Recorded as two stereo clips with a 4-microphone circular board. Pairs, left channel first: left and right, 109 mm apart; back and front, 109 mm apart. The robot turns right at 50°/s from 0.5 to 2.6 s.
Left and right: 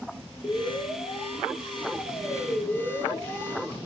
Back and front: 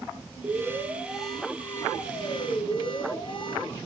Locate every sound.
0.4 s an alarm: 55° left, 2 m; by 3.8 s 160° left, 2 m